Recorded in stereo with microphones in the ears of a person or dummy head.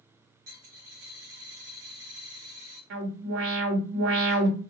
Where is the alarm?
65° right (ahead or behind), 2.5 m.